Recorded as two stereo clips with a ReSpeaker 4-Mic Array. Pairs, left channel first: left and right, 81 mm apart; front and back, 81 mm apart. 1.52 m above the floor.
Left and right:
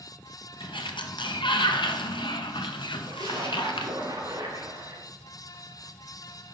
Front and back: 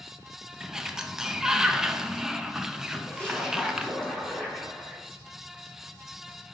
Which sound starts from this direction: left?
A sliding door, at 0.6 s.